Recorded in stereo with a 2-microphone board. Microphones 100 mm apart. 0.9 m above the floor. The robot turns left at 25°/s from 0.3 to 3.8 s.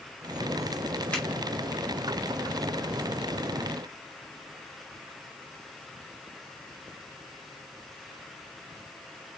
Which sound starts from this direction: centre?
A finger snap, at 1.1 s.